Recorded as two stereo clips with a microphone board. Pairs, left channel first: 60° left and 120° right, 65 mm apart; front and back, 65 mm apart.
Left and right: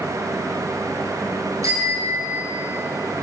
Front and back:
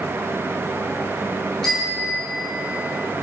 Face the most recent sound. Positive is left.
turn(degrees=-70)